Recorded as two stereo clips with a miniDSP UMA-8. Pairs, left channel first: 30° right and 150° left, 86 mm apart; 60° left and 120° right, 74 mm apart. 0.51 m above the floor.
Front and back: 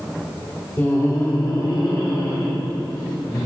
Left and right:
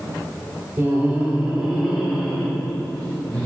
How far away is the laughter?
About 1.0 m.